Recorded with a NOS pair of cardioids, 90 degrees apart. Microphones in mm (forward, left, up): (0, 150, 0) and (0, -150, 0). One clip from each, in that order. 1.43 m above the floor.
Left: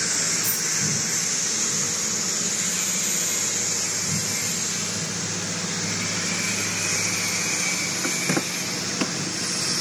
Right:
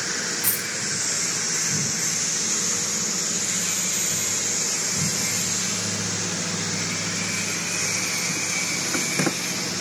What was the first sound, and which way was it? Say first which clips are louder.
A dropped coin: left 1 dB; 60° right.